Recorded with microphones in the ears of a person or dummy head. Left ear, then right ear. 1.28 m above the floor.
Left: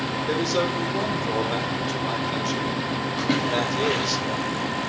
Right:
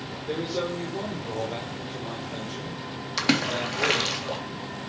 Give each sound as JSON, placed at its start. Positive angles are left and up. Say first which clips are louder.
{"t": 0.3, "sound": "a man speaking", "louder": "left 4 dB", "side_deg": 50, "distance_m": 3.0}
{"t": 3.2, "sound": "a splash", "louder": "right 1 dB", "side_deg": -65, "distance_m": 3.0}